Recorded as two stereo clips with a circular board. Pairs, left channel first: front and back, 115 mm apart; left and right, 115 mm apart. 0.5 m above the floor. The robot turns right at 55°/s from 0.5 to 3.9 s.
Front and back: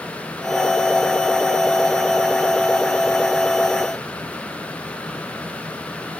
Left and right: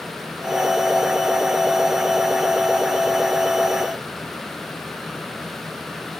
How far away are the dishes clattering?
No dishes clattering in this recording.